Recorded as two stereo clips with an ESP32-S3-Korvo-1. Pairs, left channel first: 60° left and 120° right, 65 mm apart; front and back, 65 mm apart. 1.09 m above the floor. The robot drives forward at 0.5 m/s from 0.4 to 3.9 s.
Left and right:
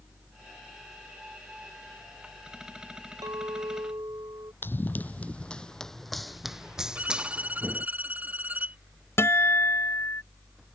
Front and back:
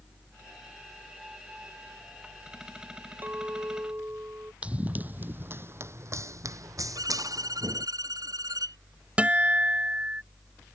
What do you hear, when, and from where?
3.2 s a clink: 120° right; by 4.5 s 125° right
4.6 s running footsteps: 110° left; by 7.9 s 175° left
7.0 s a violin: 175° left
9.2 s a guitar: 110° left